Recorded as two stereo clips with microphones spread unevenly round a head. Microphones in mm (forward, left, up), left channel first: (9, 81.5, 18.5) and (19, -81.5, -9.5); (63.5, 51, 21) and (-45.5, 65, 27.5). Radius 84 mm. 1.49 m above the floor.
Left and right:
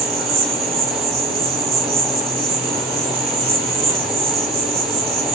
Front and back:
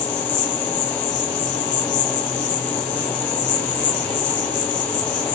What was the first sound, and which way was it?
An insect, 30° right.